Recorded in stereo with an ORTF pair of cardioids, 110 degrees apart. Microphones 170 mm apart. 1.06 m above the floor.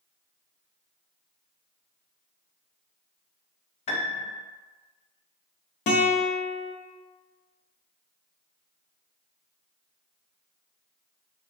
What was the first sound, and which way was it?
A piano, 40° left.